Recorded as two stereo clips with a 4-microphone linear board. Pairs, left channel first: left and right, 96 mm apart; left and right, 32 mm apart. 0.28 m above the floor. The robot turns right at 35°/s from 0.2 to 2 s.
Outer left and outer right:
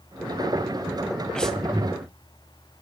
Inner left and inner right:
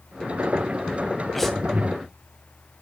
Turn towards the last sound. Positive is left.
turn(degrees=-5)  # may be behind; listen again after turning